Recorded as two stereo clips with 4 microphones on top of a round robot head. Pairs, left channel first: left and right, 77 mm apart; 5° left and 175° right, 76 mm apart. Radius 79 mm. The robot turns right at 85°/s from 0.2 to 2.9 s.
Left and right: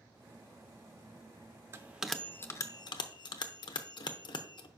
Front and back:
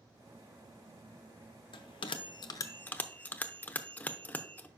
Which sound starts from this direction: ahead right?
A bell, at 1.7 s.